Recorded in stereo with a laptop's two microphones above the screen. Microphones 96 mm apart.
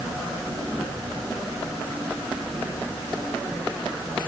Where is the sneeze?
No sneeze in this recording.